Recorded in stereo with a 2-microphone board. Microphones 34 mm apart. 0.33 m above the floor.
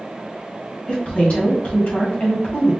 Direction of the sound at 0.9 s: 40° left (ahead or behind).